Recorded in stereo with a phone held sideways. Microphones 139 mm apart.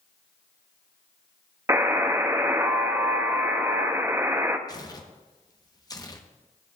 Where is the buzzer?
20° right (ahead or behind), 0.6 m.